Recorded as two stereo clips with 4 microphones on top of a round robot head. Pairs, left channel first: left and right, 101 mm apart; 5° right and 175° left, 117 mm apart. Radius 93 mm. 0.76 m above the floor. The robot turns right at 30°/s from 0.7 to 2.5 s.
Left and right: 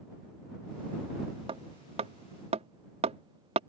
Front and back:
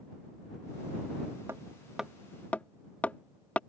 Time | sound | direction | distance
1.5 | hammering | 115° right | ?